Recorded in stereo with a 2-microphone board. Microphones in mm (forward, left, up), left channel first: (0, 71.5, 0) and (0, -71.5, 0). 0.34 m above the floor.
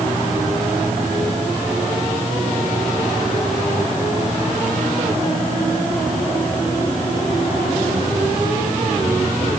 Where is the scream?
I don't hear a scream.